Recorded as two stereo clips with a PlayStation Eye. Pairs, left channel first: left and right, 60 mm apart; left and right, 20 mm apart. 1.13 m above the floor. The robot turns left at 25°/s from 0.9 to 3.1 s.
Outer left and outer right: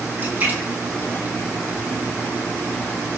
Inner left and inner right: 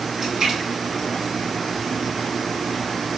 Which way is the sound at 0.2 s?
35° right (ahead or behind).